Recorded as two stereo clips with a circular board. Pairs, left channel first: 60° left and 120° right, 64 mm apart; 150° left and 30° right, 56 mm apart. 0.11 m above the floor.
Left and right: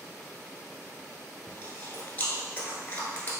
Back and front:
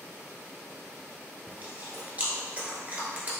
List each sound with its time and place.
1.5 s chewing: 10° left, 1.0 m